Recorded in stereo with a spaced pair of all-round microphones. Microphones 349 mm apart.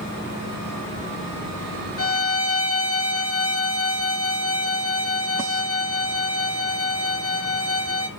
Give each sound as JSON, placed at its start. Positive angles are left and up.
{"t": 2.0, "sound": "a violin", "side_deg": 45, "distance_m": 2.0}